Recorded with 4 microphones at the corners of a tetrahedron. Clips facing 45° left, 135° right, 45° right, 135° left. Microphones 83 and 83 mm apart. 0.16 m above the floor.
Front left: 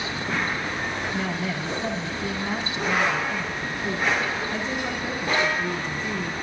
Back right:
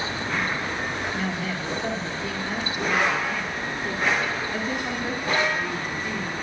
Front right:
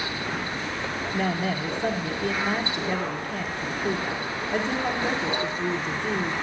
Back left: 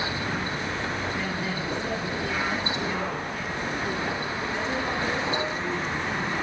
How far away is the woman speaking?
About 1.5 m.